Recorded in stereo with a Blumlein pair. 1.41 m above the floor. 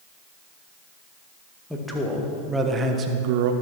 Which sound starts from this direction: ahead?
A man speaking, at 1.7 s.